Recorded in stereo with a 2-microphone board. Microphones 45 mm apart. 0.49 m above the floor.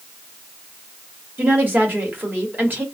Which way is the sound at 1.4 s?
45° right (ahead or behind).